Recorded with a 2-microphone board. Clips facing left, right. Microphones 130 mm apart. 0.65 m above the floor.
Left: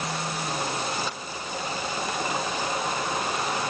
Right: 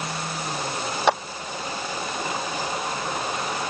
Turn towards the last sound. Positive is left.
turn(degrees=-80)